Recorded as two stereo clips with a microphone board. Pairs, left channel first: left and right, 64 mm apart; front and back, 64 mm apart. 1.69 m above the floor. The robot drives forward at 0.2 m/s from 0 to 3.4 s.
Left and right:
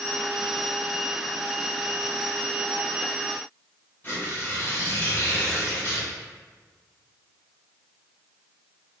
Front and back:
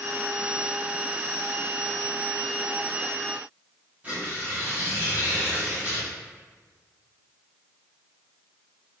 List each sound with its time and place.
4.0 s tearing paper: 130° left, 1.2 m